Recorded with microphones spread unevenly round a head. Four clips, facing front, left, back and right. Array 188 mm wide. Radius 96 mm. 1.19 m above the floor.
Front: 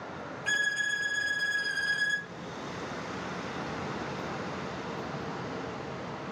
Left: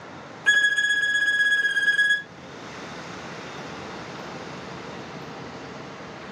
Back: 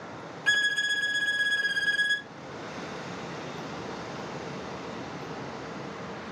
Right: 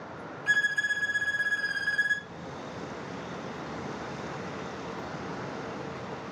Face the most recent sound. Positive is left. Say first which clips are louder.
# left 7 dB, back 4 dB
turn(degrees=110)